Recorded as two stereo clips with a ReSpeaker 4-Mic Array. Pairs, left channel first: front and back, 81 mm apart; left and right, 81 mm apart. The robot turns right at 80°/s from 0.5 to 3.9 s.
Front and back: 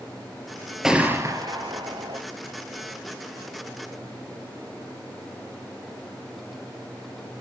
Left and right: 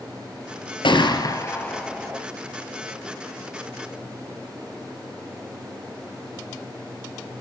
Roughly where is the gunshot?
Left.